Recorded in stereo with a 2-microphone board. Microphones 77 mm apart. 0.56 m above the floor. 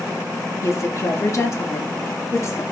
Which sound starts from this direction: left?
A woman speaking, at 0.6 s.